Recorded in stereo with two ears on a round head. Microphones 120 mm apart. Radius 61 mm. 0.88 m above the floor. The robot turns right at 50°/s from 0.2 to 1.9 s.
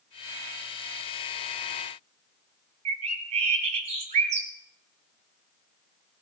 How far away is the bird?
About 1.7 m.